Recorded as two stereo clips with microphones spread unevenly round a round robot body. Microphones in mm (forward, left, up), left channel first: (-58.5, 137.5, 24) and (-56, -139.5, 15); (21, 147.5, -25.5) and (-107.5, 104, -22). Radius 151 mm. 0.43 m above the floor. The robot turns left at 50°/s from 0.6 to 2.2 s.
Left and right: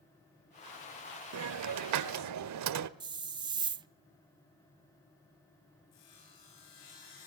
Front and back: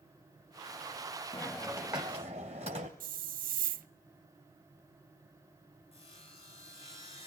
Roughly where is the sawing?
Ahead left.